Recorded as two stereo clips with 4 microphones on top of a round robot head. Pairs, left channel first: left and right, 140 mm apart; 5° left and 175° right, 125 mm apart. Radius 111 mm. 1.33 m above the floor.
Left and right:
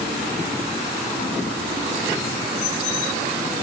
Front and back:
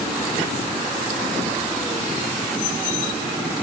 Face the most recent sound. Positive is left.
No sound to turn to.